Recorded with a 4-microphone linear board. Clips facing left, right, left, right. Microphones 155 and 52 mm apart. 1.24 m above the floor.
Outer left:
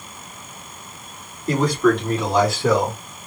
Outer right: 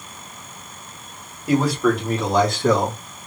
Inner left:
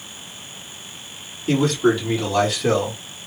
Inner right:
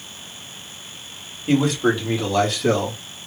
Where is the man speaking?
10° right (ahead or behind), 2 m; by 3.0 s 10° left (ahead or behind), 1.7 m.